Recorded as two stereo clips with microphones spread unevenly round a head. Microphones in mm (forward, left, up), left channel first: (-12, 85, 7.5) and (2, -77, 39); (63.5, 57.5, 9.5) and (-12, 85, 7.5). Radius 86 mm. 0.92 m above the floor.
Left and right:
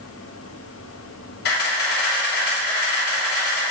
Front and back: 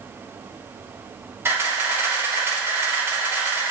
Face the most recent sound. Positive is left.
turn(degrees=100)